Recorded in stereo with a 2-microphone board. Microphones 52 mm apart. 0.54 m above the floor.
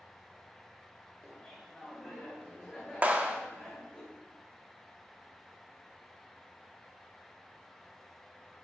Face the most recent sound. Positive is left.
turn(degrees=-25)  # may be behind; listen again after turning